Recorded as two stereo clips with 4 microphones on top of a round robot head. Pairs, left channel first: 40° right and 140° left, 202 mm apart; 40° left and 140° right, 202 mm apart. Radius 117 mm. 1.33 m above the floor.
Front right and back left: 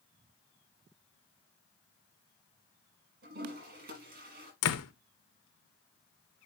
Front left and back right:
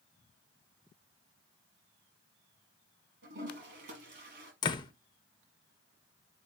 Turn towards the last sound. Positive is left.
turn(degrees=-30)